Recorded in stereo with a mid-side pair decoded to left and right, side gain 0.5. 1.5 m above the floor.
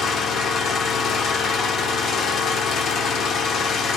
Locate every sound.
0.0 s an engine running: 60° left, 0.7 m